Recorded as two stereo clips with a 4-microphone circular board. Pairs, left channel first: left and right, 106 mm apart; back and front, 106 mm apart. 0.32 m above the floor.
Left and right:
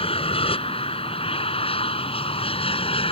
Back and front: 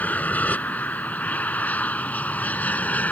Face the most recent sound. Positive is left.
turn(degrees=105)